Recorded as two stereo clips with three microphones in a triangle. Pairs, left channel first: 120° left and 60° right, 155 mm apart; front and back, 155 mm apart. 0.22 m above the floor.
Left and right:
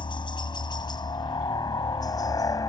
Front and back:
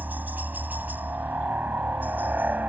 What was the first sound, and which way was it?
A helicopter, 110° left.